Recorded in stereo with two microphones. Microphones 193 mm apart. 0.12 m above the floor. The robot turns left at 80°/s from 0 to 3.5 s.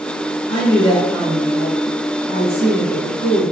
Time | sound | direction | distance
0.5 | a woman speaking | 70° left | 1.6 m